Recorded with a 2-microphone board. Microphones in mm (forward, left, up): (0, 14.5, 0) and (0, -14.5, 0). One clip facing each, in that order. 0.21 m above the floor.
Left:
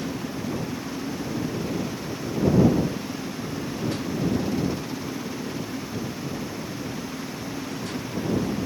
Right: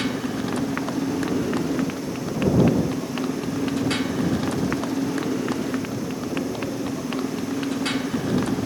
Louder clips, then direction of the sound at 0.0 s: Right 5 dB; 80° right.